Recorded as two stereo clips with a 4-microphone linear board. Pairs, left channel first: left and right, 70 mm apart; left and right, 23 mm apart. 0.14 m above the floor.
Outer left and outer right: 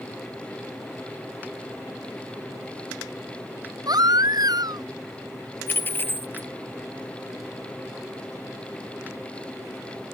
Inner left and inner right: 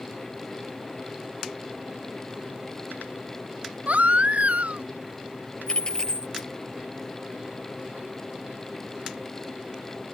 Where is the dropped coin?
30° left (ahead or behind).